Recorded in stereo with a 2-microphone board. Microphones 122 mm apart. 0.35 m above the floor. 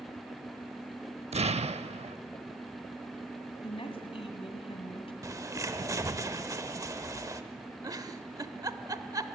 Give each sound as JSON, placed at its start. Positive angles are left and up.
{"t": 1.3, "sound": "an explosion", "side_deg": -60, "distance_m": 0.5}
{"t": 3.6, "sound": "a woman speaking", "side_deg": 50, "distance_m": 2.5}
{"t": 5.2, "sound": "a bird", "side_deg": -25, "distance_m": 0.8}
{"t": 7.8, "sound": "a giggle", "side_deg": -30, "distance_m": 0.7}